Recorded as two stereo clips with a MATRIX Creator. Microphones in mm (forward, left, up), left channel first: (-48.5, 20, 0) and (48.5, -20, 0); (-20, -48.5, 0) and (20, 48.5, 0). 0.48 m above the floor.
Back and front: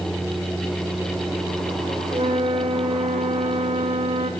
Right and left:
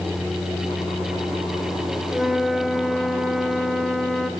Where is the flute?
25° right, 0.7 m.